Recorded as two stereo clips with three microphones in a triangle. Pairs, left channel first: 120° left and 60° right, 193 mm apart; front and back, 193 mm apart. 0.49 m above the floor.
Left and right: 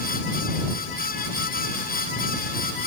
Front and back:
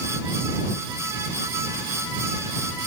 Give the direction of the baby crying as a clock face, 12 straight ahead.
No baby crying in this recording.